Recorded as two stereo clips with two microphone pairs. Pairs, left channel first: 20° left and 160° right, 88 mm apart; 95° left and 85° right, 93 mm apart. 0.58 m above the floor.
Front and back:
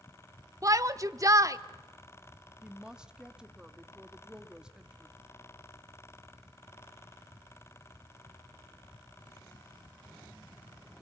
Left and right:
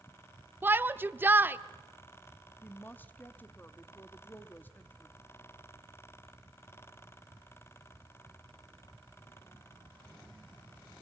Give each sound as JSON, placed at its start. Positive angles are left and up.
{"t": 0.6, "sound": "a shout", "azimuth_deg": -140, "distance_m": 0.8}
{"t": 2.6, "sound": "a woman speaking", "azimuth_deg": 135, "distance_m": 1.1}